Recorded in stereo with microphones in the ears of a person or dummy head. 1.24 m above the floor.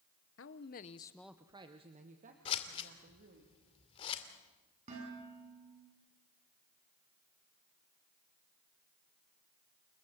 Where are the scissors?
30° left (ahead or behind), 2 m.